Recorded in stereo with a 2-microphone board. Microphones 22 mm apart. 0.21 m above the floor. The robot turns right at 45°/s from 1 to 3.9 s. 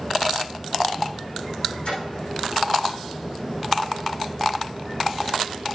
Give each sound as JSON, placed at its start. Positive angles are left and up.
{"t": 1.9, "sound": "a splash", "side_deg": 65, "distance_m": 6.5}